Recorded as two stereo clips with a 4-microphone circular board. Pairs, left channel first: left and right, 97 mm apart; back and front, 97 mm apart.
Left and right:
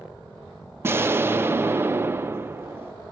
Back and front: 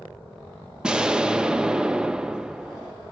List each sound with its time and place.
0.8 s an explosion: 70° right, 0.6 m